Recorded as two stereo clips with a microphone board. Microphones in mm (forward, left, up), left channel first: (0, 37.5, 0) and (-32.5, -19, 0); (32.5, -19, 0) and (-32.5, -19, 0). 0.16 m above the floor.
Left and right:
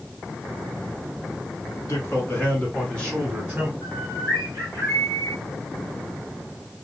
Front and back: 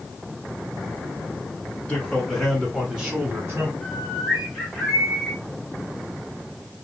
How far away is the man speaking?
About 1.5 m.